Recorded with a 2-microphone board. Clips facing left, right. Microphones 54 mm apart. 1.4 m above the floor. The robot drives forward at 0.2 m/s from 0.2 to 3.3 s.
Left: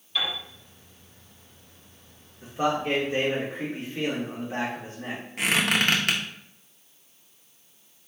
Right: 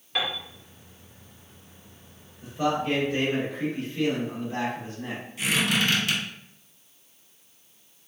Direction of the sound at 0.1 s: 60° right (ahead or behind).